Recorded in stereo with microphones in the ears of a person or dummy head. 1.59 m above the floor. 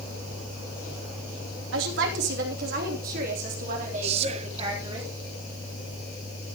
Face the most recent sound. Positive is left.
turn(degrees=-35)  # may be behind; listen again after turning